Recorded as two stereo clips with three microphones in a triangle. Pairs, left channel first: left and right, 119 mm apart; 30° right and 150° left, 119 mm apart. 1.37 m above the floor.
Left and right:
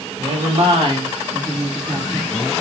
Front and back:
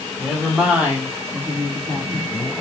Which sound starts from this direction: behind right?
A woman speaking, at 0.2 s.